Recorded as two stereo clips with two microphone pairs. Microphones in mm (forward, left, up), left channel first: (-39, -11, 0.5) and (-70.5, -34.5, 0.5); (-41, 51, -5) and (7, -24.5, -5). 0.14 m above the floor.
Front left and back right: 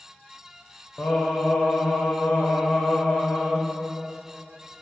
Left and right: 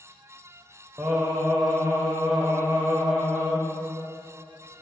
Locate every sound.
1.0 s singing: 5° right, 0.9 m